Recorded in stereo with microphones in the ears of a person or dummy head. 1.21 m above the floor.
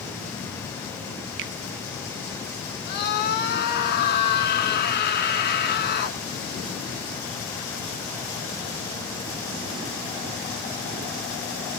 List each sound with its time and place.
1.4 s a finger snap: 60° right (ahead or behind), 1.8 m
2.9 s a scream: 45° left (ahead or behind), 2.5 m